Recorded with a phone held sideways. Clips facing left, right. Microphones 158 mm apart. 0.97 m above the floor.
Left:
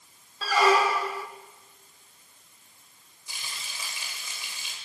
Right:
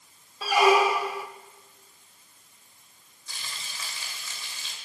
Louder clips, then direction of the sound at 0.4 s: Right 2 dB; 15° right (ahead or behind).